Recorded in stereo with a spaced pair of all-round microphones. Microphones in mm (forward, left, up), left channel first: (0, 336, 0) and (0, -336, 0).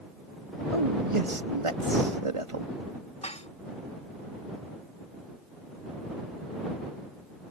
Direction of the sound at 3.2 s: 10° left (ahead or behind).